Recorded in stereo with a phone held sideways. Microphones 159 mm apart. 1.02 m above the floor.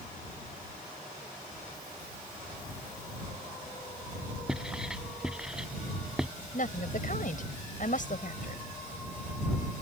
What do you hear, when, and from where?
4.5 s writing: 5° right (ahead or behind)
6.5 s a woman speaking: 60° left (ahead or behind)